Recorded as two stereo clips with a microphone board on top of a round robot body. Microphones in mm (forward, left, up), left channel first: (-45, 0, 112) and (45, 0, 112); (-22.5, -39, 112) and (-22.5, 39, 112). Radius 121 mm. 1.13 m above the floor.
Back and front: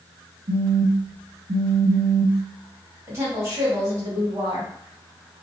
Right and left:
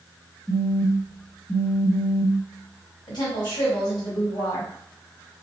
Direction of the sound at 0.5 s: Straight ahead.